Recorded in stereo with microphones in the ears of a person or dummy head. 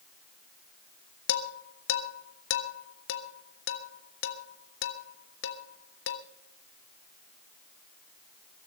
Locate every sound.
1.3 s dishes clattering: 60° left (ahead or behind), 1.3 m